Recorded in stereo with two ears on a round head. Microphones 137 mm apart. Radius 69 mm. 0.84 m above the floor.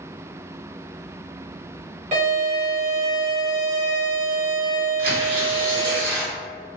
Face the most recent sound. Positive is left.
turn(degrees=-70)  # may be behind; listen again after turning